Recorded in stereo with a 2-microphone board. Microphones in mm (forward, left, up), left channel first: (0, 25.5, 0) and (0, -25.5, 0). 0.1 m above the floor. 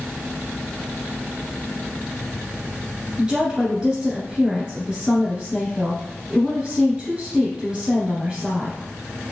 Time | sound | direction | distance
3.2 | a woman speaking | 20° right (ahead or behind) | 1.4 m